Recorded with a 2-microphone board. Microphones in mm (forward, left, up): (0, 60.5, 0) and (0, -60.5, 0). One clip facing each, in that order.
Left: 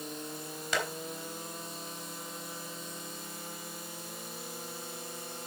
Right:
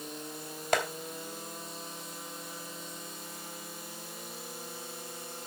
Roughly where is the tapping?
Right.